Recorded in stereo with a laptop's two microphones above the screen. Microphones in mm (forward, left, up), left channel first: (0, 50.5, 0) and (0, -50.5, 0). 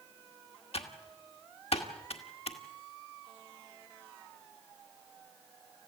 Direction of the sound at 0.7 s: 70° left (ahead or behind).